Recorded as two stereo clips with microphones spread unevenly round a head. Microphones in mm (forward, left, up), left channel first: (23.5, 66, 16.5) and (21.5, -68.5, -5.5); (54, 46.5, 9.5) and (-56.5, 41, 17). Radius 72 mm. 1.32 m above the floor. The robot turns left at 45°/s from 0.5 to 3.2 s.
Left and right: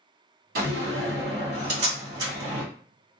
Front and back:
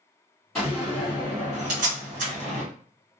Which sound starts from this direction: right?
A door slam, at 0.6 s.